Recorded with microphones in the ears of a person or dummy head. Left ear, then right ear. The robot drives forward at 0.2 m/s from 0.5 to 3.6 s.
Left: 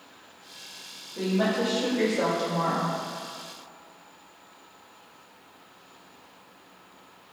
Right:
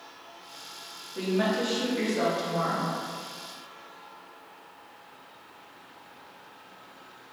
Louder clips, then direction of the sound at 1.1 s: Left 1 dB; 85° right.